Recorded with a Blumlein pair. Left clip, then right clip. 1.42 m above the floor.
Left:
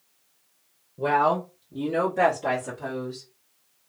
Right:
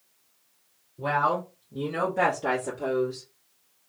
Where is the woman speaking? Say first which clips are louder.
Left 3 dB; 40° left, 1.0 m; by 3.2 s 25° right, 1.6 m.